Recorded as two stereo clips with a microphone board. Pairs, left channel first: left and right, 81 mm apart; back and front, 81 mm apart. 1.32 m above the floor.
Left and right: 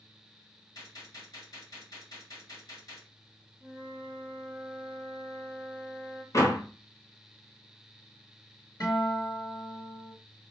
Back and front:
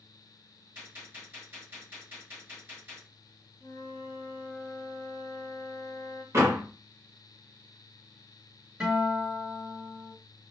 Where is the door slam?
50° left, 0.8 m.